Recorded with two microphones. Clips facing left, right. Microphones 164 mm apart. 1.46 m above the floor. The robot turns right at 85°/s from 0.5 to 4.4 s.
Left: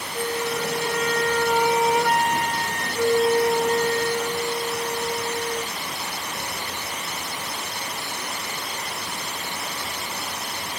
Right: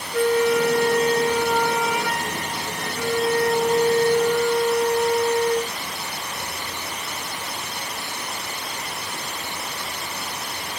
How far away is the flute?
About 0.9 m.